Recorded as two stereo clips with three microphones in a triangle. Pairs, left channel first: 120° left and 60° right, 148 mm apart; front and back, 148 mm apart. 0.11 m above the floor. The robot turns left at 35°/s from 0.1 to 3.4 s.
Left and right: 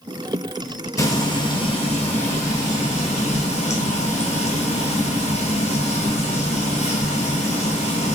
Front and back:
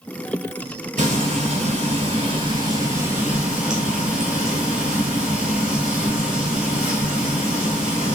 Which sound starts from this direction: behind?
Frying, at 1.0 s.